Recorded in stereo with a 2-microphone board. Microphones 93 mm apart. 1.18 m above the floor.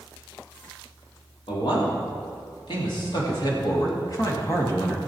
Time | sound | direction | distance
1.5 | a man speaking | 70° left (ahead or behind) | 3.5 m